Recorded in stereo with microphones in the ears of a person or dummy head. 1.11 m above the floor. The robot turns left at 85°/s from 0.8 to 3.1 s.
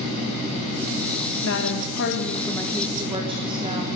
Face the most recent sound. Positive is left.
turn(degrees=-25)